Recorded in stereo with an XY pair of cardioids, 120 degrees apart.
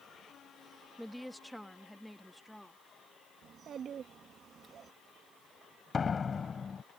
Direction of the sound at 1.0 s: Straight ahead.